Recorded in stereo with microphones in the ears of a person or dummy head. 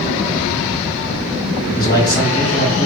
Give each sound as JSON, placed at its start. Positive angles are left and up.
{"t": 1.6, "sound": "a man speaking", "side_deg": 15, "distance_m": 2.5}